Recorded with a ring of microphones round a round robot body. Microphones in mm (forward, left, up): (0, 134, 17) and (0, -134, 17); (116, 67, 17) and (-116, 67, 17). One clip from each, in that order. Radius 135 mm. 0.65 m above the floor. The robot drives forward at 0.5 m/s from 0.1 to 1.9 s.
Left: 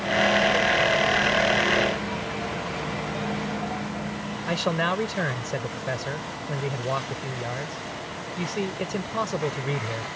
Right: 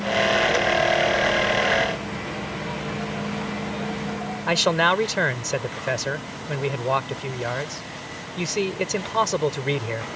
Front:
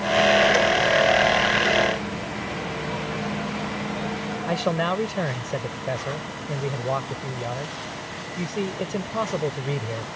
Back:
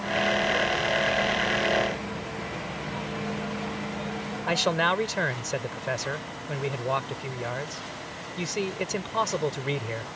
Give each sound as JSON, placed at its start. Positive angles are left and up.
{"t": 4.5, "sound": "a man speaking", "azimuth_deg": -140}